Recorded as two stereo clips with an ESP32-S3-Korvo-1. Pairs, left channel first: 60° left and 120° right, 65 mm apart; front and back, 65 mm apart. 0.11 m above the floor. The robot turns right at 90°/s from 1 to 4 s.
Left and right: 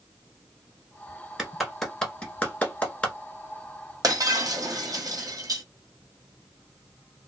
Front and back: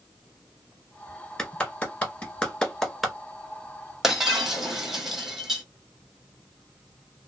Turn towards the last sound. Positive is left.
turn(degrees=-95)